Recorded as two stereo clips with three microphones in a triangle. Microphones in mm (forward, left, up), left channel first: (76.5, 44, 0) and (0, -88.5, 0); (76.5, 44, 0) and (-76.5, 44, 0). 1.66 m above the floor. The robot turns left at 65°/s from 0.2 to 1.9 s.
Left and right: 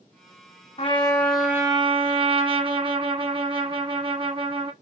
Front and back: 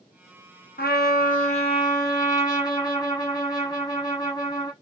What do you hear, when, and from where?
0.8 s a trumpet: 10° left, 1.1 m; by 4.7 s 65° right, 1.1 m